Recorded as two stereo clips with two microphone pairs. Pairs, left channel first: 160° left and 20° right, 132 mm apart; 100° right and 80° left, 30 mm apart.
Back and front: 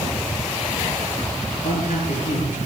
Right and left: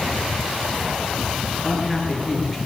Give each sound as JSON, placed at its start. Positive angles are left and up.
{"t": 1.6, "sound": "a man speaking", "azimuth_deg": 160, "distance_m": 7.0}